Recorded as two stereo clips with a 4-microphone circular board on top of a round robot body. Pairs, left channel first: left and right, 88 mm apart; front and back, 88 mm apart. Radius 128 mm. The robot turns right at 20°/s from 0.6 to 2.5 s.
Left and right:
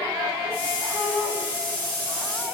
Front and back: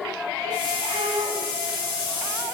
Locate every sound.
0.9 s a shout: 155° left, 9 m; by 1.4 s 165° left, 9 m